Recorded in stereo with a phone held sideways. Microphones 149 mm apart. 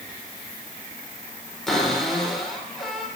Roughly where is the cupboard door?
Centre.